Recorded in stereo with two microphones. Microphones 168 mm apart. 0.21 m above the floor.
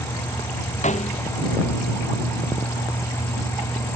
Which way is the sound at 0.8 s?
45° left (ahead or behind).